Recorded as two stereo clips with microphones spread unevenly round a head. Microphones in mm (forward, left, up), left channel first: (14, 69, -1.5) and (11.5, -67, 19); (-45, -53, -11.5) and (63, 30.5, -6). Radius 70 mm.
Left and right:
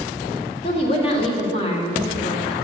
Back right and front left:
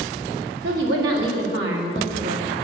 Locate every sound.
0.6 s a woman speaking: 40° left, 1.9 m